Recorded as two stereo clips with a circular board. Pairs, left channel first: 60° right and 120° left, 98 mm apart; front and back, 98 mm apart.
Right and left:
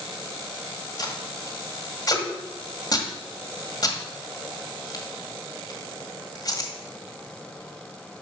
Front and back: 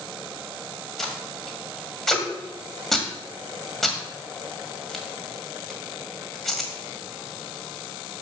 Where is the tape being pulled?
85° right, 1.6 m.